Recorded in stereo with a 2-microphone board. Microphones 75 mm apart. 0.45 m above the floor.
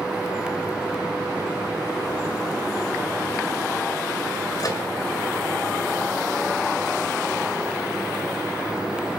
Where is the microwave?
55° left (ahead or behind), 1.7 m.